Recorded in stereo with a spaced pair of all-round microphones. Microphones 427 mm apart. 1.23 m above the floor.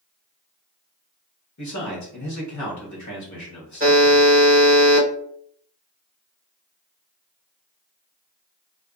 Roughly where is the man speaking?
Left.